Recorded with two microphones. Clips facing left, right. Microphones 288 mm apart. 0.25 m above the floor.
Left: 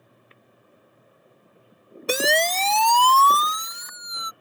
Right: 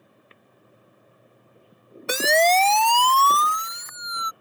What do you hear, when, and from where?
2.1 s a siren: 40° left (ahead or behind)